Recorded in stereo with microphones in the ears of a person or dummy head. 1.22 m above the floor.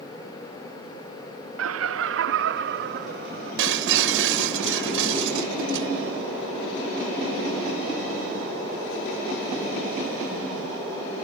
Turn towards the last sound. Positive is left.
turn(degrees=-70)  # may be behind; listen again after turning